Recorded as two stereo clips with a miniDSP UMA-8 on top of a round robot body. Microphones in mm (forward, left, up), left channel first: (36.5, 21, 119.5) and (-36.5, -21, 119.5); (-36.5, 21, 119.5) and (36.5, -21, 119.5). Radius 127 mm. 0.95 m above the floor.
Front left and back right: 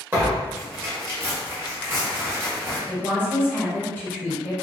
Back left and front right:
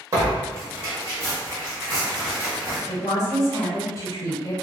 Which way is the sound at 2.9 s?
100° left.